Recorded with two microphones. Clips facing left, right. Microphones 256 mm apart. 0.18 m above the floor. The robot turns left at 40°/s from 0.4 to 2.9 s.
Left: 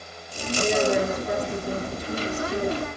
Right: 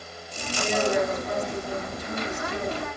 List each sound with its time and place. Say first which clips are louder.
0.6 s a woman speaking: left 2 dB; 135° left, 3.5 m; by 2.8 s 45° left, 3.5 m